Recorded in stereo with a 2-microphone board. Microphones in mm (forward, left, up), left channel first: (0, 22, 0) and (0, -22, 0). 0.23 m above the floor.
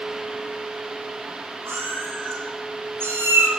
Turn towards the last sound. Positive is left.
turn(degrees=-65)  # may be behind; listen again after turning